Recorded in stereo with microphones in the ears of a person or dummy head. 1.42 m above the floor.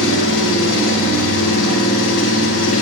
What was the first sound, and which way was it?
An engine running, 75° left (ahead or behind).